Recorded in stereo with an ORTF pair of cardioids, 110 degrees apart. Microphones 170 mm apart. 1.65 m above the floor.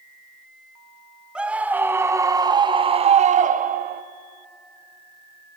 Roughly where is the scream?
Ahead.